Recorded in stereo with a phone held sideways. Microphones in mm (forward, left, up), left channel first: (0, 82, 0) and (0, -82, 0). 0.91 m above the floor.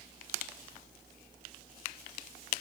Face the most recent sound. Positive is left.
No sound to turn to.